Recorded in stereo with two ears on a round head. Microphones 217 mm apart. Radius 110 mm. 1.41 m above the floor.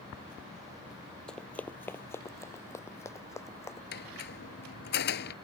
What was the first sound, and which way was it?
Running footsteps, 5° left (ahead or behind).